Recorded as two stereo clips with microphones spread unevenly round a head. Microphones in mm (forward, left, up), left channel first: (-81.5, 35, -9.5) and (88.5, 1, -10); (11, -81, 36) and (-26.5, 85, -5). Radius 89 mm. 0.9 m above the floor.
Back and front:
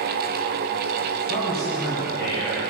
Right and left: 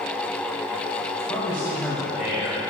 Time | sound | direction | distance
1.1 | a man speaking | 155° right | 4 m